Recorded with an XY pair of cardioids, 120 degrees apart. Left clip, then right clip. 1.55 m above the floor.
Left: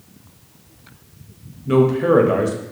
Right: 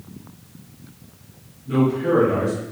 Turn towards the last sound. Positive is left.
turn(degrees=65)